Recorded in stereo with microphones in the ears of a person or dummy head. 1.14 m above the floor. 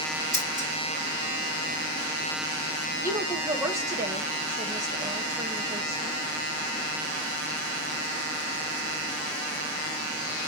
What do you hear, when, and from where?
0.3 s scissors: 5° right (ahead or behind), 4 m
3.0 s a woman speaking: 20° right (ahead or behind), 1.3 m